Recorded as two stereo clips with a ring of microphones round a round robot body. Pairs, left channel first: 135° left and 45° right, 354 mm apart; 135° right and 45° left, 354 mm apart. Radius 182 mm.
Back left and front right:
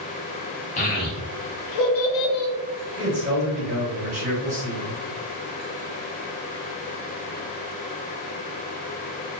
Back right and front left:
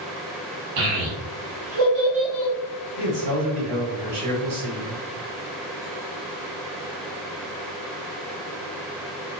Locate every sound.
0.8 s a child speaking: 65° left, 1.0 m; by 2.5 s 135° left, 0.7 m
3.0 s a man speaking: 25° left, 1.5 m